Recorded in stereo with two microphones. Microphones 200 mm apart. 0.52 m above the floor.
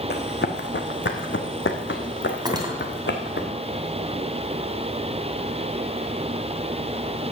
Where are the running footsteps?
55° left (ahead or behind), 1.8 m; by 3.5 s 60° left (ahead or behind), 2.5 m.